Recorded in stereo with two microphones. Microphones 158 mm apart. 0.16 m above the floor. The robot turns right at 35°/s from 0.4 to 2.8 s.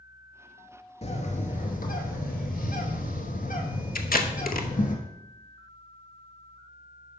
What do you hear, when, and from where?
1.0 s a bird: 45° left, 1.0 m; by 5.0 s 110° left, 1.0 m
4.0 s tape being pulled: 70° left (ahead or behind), 0.7 m